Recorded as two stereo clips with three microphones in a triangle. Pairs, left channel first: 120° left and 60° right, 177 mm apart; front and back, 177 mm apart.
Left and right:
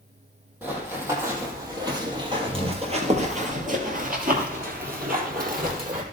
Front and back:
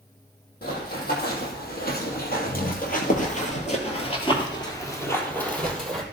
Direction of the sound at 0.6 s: 20° left.